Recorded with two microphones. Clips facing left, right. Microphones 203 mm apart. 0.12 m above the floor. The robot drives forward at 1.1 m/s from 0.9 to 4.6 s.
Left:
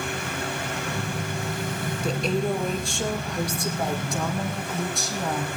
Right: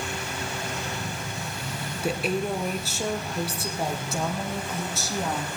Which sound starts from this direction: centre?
A woman speaking, at 2.0 s.